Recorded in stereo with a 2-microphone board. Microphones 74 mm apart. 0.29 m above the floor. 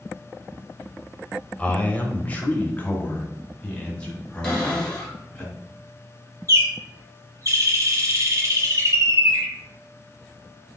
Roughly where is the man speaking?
Centre.